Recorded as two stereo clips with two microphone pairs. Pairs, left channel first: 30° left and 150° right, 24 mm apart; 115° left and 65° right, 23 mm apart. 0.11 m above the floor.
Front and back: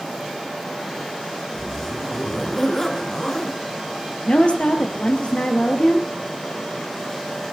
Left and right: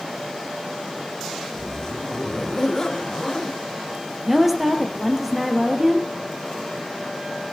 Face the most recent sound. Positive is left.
turn(degrees=15)